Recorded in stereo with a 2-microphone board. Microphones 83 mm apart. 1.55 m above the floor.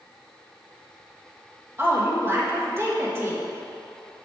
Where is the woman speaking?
30° right (ahead or behind), 1.6 m.